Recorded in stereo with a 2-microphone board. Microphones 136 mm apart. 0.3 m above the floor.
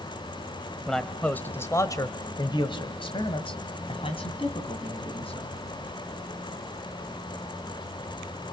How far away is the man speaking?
About 1.4 m.